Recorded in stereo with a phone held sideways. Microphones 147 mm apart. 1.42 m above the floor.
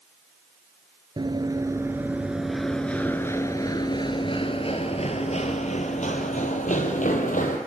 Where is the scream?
No scream in this recording.